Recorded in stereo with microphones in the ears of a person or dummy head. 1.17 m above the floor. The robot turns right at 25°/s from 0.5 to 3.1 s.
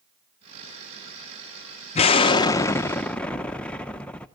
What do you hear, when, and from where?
1.9 s an explosion: 30° left (ahead or behind), 0.8 m; by 4.3 s 5° left (ahead or behind), 0.8 m